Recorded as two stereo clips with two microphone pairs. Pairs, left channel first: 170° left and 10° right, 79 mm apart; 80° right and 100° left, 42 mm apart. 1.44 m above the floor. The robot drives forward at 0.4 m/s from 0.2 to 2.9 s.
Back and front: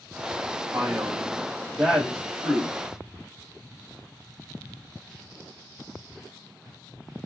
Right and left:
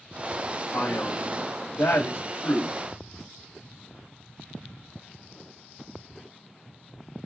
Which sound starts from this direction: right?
A man speaking, at 0.7 s.